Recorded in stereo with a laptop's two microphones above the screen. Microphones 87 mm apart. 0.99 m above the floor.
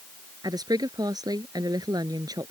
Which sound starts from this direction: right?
A woman speaking, at 0.4 s.